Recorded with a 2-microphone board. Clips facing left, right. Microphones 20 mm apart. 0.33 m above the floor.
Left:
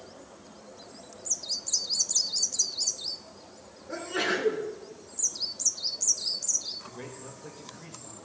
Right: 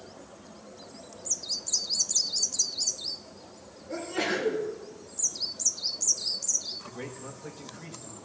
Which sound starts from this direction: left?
A sneeze, at 3.9 s.